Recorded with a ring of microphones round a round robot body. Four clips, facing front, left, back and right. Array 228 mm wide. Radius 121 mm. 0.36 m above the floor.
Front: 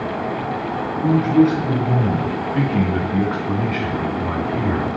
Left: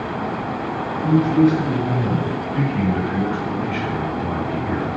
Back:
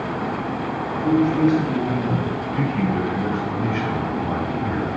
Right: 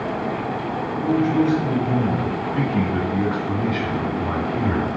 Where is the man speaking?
10° left, 6 m; by 4.9 s 35° right, 3 m.